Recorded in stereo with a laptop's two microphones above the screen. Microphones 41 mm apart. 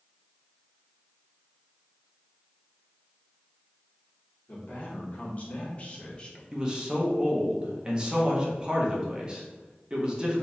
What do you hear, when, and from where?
4.5 s a man speaking: 40° left (ahead or behind), 1.7 m; by 6.4 s 15° left (ahead or behind), 0.8 m
6.5 s a man speaking: 25° right (ahead or behind), 1.0 m